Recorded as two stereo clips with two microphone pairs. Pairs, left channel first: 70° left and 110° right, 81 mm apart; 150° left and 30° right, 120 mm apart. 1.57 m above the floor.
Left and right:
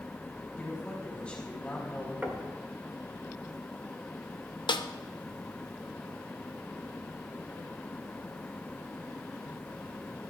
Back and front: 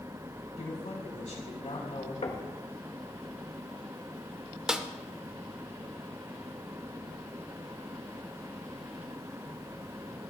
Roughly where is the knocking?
Behind.